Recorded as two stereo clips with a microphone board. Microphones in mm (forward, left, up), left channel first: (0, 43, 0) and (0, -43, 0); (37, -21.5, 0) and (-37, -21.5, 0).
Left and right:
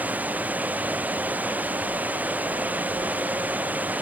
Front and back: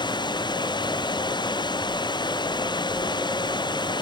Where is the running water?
15° right.